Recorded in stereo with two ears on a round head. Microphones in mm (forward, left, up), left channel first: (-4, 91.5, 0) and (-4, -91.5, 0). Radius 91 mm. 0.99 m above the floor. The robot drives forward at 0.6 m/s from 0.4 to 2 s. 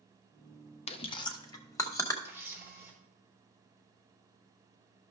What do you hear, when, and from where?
0.9 s chewing: 30° left (ahead or behind), 0.7 m; by 2.1 s 15° left (ahead or behind), 1.3 m
2.2 s a camera shutter: 10° right (ahead or behind), 3.5 m